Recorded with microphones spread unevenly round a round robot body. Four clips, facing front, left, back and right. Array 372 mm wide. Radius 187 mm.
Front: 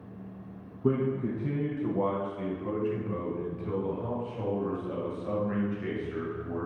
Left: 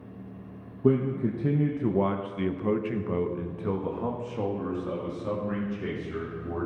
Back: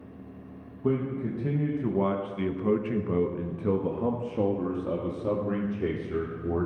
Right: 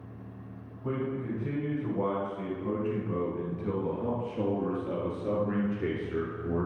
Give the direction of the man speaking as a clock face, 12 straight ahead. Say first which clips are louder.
Left 8 dB, even; 9 o'clock.